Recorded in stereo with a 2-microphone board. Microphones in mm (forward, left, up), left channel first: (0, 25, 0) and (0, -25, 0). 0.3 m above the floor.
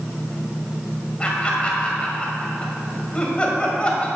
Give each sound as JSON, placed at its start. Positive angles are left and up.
{"t": 1.2, "sound": "laughter", "side_deg": 25, "distance_m": 1.6}